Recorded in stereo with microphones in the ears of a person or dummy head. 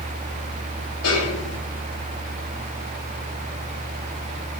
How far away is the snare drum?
About 8.5 m.